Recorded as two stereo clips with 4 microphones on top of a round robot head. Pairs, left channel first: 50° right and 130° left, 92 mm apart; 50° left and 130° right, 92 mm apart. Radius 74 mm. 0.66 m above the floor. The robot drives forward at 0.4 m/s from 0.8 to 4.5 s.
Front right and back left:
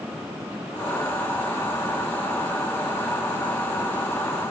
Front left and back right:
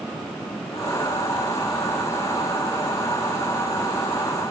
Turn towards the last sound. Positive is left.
No sound to turn to.